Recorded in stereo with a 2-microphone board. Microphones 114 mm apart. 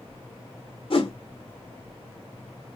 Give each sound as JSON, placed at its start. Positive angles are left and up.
{"t": 0.9, "sound": "a whoosh", "side_deg": 50, "distance_m": 1.2}